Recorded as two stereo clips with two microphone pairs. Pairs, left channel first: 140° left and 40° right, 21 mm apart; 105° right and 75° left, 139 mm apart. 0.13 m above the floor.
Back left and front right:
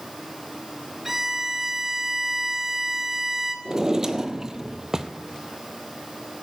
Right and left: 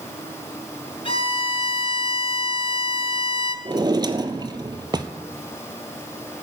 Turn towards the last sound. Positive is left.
turn(degrees=20)